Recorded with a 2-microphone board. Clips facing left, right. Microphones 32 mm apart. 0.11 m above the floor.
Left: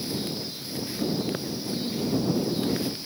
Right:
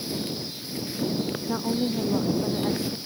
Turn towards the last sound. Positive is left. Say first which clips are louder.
# right 4 dB
turn(degrees=-65)  # may be behind; listen again after turning